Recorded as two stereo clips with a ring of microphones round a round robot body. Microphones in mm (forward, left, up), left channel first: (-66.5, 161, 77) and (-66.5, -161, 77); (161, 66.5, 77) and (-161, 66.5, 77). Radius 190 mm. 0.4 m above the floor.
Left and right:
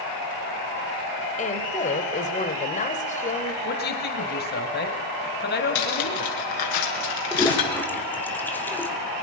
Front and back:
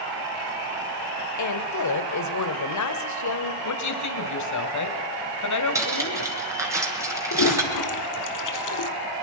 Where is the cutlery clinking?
100° left, 5 m.